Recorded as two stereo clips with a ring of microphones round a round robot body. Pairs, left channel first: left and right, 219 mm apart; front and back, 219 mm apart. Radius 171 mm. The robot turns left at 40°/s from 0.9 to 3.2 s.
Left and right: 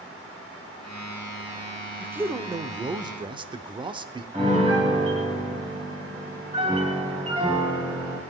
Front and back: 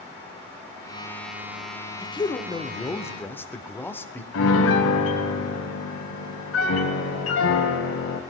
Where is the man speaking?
20° right, 0.8 m; by 4.2 s 65° right, 0.8 m.